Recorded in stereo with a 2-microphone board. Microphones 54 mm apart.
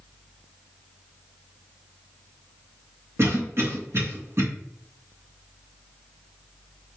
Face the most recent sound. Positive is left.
turn(degrees=-55)  # may be behind; listen again after turning